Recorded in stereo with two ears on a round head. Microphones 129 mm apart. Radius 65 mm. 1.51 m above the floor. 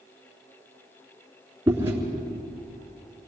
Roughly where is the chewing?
Centre.